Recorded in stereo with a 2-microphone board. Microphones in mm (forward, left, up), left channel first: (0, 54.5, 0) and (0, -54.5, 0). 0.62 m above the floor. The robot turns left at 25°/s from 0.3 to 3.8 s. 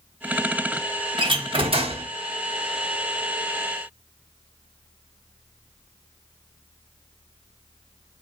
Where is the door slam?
45° right (ahead or behind), 0.9 m; by 2.0 s 60° right (ahead or behind), 0.9 m.